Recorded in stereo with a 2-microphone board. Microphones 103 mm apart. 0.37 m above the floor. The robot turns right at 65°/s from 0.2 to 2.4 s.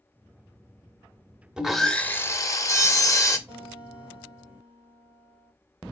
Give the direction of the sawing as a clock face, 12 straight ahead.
12 o'clock.